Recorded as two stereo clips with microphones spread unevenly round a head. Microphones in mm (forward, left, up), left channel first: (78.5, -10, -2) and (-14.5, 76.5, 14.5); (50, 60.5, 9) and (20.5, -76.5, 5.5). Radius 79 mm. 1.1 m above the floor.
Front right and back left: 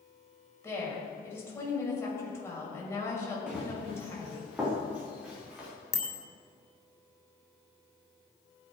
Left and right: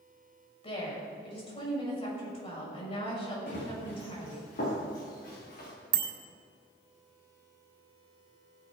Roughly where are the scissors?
No scissors in this recording.